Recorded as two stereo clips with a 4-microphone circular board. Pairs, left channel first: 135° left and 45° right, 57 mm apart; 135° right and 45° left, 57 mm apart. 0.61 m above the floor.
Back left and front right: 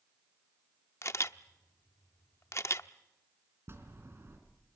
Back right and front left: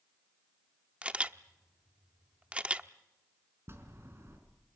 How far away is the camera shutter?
About 0.7 m.